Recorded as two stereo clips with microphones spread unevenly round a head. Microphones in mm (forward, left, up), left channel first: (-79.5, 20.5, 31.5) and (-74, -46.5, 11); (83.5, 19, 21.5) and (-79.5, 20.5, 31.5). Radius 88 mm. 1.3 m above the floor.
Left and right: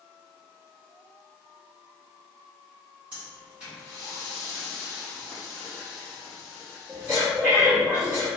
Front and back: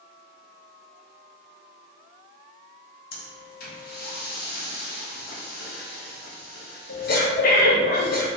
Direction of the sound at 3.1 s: 10° left.